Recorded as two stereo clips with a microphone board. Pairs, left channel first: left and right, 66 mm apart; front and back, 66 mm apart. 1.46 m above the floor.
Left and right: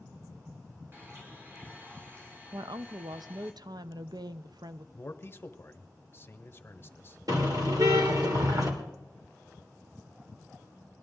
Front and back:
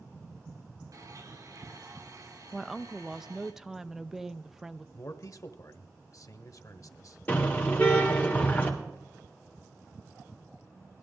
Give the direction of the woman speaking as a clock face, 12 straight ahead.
3 o'clock.